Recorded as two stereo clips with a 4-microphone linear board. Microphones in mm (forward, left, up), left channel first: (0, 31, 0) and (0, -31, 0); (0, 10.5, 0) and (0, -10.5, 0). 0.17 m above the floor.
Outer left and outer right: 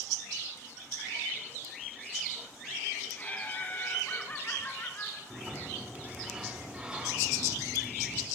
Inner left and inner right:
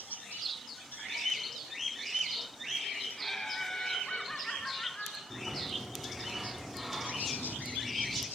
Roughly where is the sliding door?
Centre.